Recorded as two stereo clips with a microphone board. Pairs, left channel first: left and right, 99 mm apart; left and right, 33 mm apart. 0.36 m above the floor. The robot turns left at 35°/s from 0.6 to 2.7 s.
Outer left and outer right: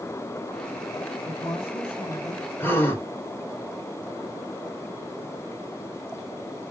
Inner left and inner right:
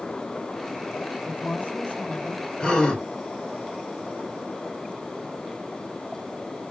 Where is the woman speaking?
100° left, 1.6 m; by 2.5 s 55° left, 1.6 m.